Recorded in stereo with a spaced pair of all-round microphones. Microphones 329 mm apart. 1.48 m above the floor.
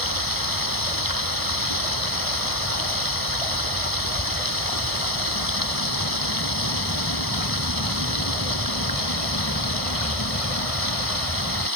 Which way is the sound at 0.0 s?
85° right.